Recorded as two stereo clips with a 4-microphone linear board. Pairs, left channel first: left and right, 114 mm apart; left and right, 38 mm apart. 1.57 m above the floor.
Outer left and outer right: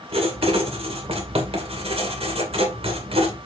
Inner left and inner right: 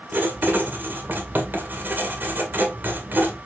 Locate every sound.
0.1 s writing: 60° right (ahead or behind), 2 m